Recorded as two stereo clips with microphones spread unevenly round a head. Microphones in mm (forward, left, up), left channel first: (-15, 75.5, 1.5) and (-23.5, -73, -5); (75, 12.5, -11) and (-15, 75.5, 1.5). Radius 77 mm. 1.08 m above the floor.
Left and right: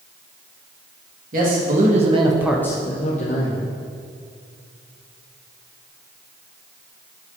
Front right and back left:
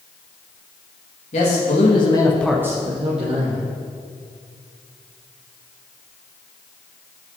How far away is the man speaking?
About 1.9 m.